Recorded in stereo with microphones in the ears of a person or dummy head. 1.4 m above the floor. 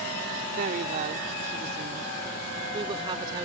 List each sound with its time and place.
0.6 s a woman speaking: 45° right (ahead or behind); by 3.5 s 20° right (ahead or behind)